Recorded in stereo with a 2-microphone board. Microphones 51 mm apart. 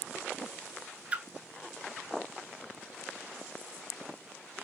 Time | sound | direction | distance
1.1 | a splash | 25° right (ahead or behind) | 0.6 m